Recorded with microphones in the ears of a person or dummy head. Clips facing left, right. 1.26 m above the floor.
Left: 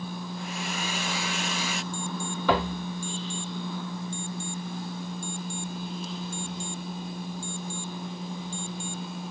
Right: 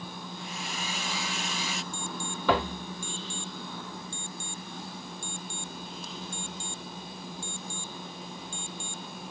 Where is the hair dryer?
45° left (ahead or behind).